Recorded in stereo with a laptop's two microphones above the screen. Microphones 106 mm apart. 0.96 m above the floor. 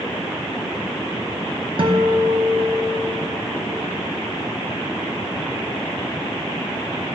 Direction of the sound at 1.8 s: 50° right (ahead or behind).